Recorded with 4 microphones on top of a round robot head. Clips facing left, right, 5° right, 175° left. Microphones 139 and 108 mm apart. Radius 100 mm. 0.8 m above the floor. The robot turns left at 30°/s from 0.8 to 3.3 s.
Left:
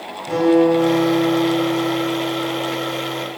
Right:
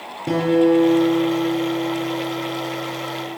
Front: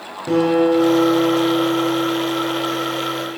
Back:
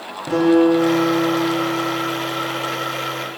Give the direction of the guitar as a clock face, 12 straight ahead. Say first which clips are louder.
Left 2 dB, back 1 dB; 3 o'clock.